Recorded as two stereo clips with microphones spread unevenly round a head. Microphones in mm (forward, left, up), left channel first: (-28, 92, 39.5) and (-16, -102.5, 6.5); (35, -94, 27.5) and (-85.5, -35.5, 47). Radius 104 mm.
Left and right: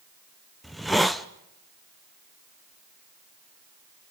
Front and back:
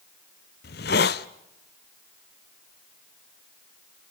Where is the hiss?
10° left, 0.6 m.